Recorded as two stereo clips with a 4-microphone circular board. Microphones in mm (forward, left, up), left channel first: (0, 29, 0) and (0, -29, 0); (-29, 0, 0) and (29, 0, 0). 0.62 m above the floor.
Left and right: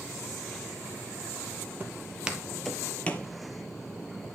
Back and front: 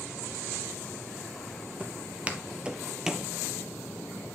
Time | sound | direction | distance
1.8 | footsteps | 50° right | 0.8 m